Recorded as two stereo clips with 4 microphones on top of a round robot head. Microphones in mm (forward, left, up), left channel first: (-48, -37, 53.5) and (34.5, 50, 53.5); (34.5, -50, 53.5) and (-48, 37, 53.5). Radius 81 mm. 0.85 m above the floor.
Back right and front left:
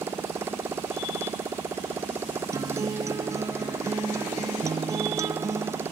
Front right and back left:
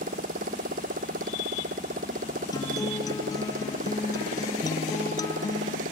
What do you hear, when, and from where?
0.0 s a motorcycle: 120° left
2.5 s a guitar: 5° right